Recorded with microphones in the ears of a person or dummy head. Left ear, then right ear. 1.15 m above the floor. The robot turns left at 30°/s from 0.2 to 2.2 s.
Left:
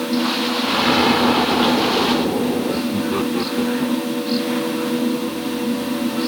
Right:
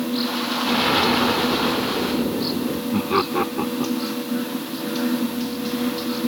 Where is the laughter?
30° right (ahead or behind).